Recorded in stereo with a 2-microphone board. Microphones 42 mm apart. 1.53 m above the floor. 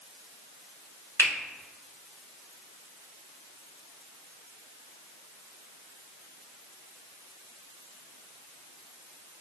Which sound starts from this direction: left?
A finger snap, at 1.2 s.